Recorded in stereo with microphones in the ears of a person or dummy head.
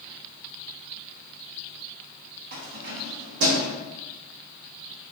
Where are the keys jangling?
45° right (ahead or behind), 0.8 m.